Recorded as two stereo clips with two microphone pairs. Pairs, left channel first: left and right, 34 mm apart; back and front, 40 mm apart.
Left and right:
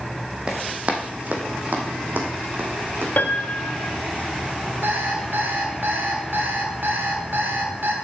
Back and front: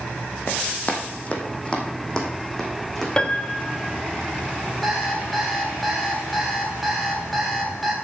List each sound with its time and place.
0.5 s running footsteps: 140° right, 2 m; by 3.1 s 95° right, 3 m
3.2 s a piano: 115° left, 0.9 m
4.8 s an alarm clock: 85° right, 2.5 m